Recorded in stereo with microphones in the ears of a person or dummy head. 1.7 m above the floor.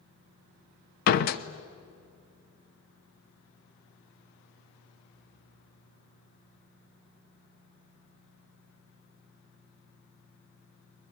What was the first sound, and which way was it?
A door slam, 60° left (ahead or behind).